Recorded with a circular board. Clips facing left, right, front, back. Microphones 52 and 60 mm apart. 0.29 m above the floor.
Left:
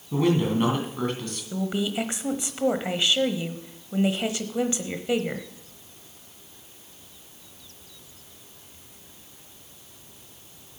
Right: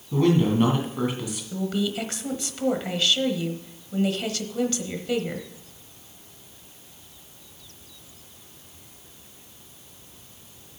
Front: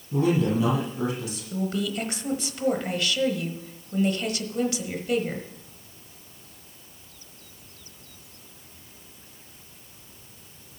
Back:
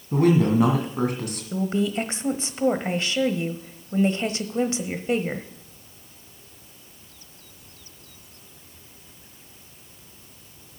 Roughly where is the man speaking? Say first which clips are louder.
Right 2 dB, back 4 dB; behind.